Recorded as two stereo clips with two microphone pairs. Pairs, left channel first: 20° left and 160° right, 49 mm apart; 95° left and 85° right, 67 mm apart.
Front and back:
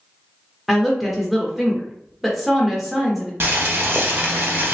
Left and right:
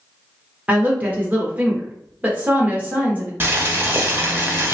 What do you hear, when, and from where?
0.7 s a woman speaking: 70° right, 0.8 m
3.4 s boiling: 130° right, 0.7 m